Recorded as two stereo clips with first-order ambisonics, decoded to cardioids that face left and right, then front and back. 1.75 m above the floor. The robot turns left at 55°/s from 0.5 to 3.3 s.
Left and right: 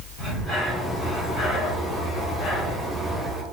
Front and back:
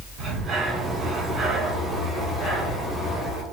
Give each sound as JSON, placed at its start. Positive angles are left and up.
{"t": 0.2, "sound": "breathing", "azimuth_deg": 160, "distance_m": 1.9}